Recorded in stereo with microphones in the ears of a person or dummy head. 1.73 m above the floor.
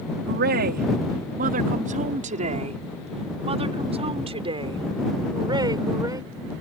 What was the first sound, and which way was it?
A woman speaking, 55° right (ahead or behind).